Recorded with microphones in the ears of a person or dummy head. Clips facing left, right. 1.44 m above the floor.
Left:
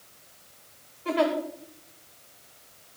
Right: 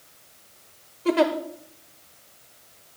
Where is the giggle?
55° right (ahead or behind), 1.1 m.